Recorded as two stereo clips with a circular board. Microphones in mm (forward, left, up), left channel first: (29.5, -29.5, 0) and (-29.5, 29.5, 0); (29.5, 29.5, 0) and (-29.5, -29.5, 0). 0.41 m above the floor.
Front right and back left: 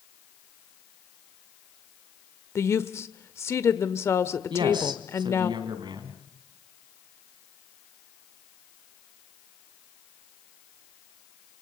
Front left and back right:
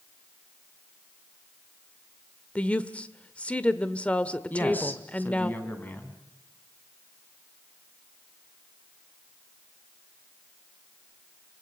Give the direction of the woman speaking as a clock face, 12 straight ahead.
1 o'clock.